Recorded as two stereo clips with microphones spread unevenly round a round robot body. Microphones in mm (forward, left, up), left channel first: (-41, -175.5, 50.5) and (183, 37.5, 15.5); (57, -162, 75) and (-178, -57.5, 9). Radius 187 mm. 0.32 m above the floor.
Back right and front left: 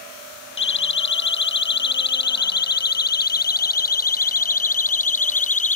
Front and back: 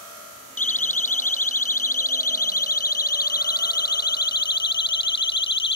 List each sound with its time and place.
0.6 s a siren: 85° right; by 5.8 s 70° right